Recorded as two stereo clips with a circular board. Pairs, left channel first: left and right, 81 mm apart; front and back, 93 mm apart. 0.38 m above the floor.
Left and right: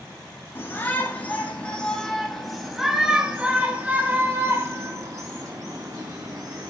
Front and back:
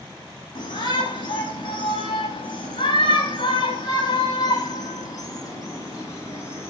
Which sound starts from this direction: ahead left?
A shout, at 0.6 s.